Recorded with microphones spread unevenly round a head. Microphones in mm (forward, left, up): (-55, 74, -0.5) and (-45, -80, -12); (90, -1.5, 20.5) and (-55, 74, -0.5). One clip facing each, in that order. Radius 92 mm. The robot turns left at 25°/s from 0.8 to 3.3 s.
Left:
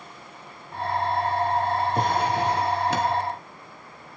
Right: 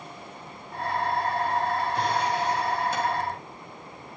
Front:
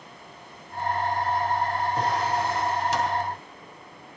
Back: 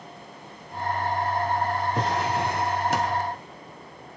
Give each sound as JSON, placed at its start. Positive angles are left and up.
{"t": 1.9, "sound": "a drawer", "azimuth_deg": 135, "distance_m": 2.5}